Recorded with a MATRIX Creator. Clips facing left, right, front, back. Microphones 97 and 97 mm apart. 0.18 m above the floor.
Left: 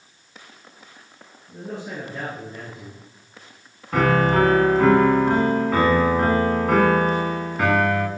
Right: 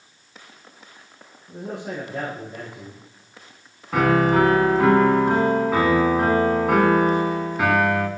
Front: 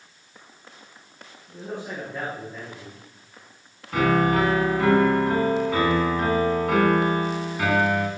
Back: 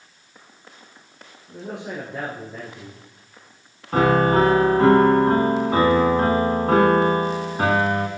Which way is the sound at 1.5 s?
110° right.